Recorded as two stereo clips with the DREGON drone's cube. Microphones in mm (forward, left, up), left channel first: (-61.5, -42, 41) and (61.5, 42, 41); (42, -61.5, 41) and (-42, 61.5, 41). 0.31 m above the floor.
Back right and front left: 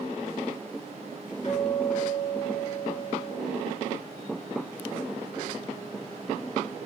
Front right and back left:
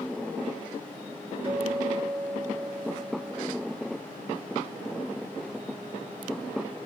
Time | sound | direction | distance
1.4 | a guitar | 175° left | 4.5 m